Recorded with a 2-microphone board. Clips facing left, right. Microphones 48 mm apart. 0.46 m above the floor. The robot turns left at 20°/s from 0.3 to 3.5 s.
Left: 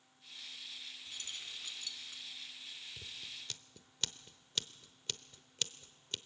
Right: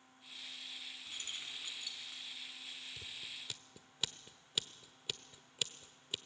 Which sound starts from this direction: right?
Keys jangling, at 1.1 s.